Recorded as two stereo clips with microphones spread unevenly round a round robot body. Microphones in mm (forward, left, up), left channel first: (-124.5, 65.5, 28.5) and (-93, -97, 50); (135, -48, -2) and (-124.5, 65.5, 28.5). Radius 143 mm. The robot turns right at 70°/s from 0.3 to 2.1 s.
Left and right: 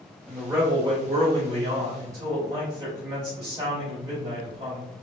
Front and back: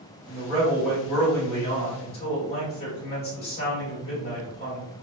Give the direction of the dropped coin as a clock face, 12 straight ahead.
No dropped coin in this recording.